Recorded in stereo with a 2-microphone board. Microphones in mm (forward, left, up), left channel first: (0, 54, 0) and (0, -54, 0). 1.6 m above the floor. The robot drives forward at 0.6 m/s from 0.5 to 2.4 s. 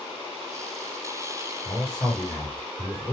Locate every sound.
1.6 s a man speaking: 5° left (ahead or behind), 1.6 m